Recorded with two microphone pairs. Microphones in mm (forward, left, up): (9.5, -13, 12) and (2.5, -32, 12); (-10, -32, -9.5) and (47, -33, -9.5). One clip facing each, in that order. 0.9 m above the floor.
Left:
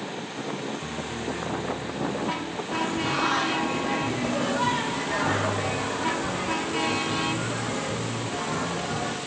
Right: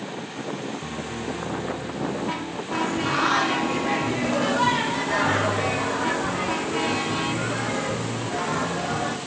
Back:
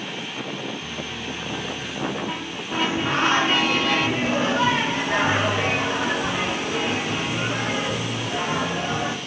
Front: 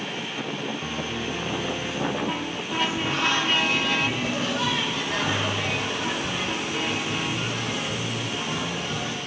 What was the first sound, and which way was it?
A piano, 30° right.